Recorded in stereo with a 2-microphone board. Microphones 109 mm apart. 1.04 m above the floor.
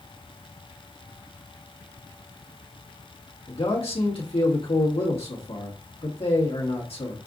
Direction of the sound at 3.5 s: 60° left (ahead or behind).